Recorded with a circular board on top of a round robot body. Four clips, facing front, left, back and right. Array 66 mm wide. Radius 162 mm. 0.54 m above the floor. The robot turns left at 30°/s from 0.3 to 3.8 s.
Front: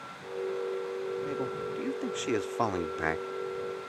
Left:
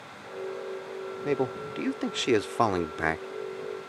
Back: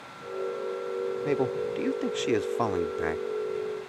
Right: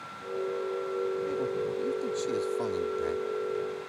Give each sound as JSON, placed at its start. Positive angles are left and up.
{"t": 1.2, "sound": "a man speaking", "azimuth_deg": 130}